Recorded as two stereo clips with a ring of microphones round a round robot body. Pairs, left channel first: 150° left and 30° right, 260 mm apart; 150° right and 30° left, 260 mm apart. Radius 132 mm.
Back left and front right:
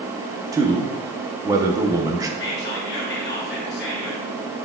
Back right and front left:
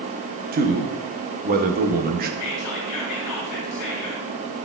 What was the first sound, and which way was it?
A man speaking, 35° left.